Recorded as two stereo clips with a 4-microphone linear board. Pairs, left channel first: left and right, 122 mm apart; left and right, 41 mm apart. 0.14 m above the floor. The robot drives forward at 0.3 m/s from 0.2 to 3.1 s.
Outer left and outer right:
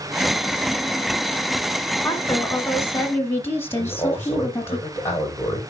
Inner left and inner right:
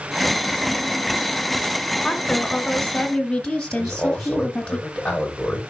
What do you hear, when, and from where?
2.0 s a woman speaking: 20° left (ahead or behind), 1.5 m
3.8 s a man speaking: 15° left (ahead or behind), 6.5 m